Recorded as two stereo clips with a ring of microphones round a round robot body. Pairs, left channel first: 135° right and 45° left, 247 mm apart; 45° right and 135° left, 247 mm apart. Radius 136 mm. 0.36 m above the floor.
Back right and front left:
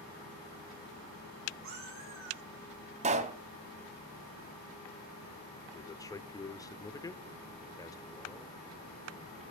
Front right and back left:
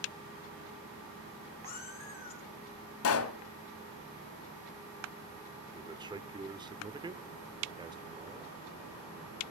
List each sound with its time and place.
1.6 s a cat meowing: 10° left, 8 m
3.0 s a pop: 20° right, 1.2 m
5.7 s a man speaking: 175° left, 0.9 m